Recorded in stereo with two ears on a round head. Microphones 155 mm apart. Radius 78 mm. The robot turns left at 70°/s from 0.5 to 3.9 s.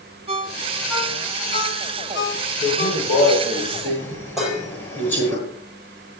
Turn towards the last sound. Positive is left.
turn(degrees=0)  # may be behind; listen again after turning